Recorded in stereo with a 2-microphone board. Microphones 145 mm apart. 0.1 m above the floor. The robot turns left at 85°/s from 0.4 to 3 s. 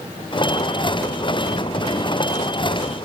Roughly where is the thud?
No thud in this recording.